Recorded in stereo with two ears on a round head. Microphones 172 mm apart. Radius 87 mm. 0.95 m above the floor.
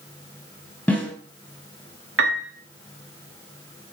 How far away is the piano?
About 2 m.